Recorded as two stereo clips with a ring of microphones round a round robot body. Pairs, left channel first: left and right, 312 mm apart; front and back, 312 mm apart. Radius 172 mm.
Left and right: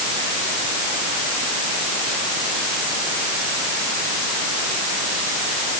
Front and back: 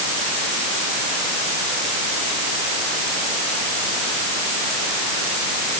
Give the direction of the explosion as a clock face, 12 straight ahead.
No explosion in this recording.